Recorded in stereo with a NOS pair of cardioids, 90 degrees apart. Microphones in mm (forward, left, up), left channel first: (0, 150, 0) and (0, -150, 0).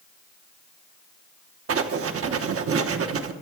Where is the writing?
45° right, 1.0 m.